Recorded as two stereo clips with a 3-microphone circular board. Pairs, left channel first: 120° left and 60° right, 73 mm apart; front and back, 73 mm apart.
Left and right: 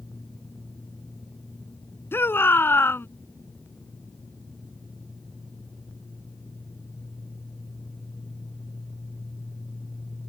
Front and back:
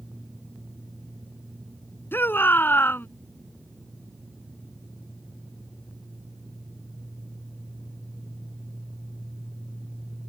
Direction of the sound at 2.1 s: 60° left.